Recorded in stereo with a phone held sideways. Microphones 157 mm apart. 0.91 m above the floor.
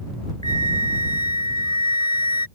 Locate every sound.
0.4 s a flute: 25° left (ahead or behind)